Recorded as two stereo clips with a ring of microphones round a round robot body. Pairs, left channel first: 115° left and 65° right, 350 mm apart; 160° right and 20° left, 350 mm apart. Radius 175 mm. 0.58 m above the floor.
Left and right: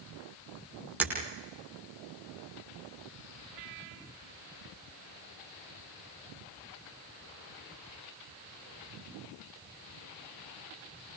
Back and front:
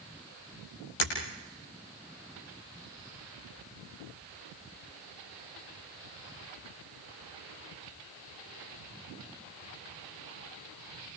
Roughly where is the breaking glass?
Behind right.